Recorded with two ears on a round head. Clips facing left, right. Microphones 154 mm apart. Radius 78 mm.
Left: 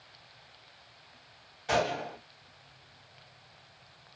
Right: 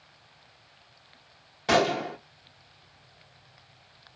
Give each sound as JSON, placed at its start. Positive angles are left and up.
{"t": 1.7, "sound": "a gunshot", "side_deg": -60, "distance_m": 0.9}